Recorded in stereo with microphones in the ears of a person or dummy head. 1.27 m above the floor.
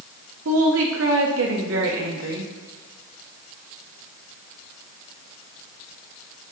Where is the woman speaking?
75° right (ahead or behind), 1.7 m.